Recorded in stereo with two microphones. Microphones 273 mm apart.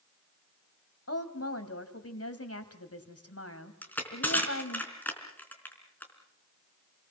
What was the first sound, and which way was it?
A woman speaking, 60° left (ahead or behind).